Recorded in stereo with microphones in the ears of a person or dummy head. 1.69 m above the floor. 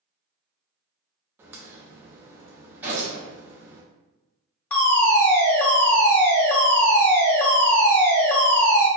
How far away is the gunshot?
About 1.3 m.